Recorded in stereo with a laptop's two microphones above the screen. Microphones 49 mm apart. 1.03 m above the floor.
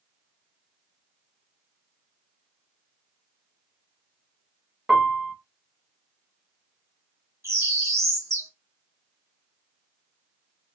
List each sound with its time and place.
4.9 s a piano: 10° right (ahead or behind), 1.2 m
7.4 s a bird: 75° right (ahead or behind), 2.5 m